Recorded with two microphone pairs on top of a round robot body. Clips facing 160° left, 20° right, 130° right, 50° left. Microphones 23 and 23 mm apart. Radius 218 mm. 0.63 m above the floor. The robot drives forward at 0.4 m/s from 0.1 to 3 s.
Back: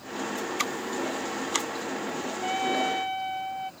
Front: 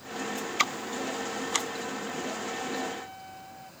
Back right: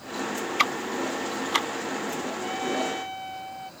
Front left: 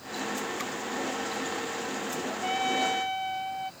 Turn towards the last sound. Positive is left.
turn(degrees=125)